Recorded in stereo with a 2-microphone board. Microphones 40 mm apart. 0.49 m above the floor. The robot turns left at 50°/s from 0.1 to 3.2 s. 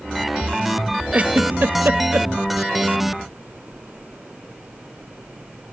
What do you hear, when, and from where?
1.1 s a giggle: 35° right (ahead or behind), 1.1 m; by 2.3 s 70° right (ahead or behind), 1.1 m